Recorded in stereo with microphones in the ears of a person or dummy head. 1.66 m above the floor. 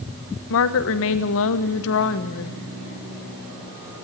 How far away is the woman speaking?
About 1.3 m.